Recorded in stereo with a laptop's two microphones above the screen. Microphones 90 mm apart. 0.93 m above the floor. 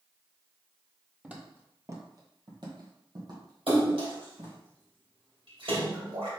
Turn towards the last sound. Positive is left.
turn(degrees=-80)